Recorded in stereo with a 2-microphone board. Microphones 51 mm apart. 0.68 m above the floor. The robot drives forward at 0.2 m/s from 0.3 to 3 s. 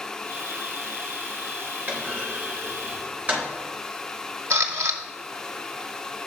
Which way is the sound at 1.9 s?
30° right (ahead or behind).